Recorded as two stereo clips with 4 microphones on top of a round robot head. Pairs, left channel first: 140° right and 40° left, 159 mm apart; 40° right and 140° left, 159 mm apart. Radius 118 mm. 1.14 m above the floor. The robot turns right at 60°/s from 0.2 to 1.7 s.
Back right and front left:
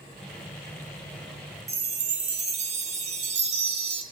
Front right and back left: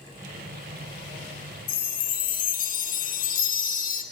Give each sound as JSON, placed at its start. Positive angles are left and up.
{"t": 1.7, "sound": "a chime", "azimuth_deg": -5, "distance_m": 1.3}